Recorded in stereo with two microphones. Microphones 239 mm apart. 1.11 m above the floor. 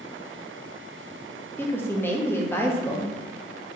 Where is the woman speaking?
10° left (ahead or behind), 0.7 m.